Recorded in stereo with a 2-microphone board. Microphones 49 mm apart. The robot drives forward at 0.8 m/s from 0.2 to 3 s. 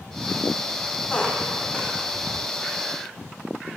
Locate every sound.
1.1 s a squeak: 25° left (ahead or behind), 2.5 m; by 1.9 s 20° left (ahead or behind), 3 m